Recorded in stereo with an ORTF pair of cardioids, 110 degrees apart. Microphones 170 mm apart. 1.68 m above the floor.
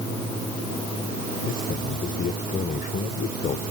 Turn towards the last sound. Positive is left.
turn(degrees=60)